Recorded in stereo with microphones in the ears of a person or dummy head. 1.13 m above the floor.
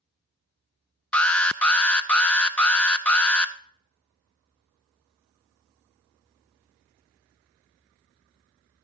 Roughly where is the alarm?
Centre.